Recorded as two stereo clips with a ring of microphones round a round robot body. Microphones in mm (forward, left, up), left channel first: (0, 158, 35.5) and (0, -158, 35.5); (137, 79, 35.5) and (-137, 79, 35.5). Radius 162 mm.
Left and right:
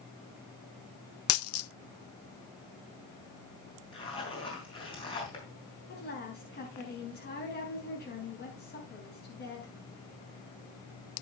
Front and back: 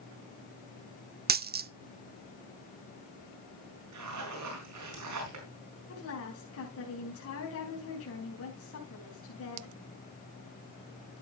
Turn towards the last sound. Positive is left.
turn(degrees=30)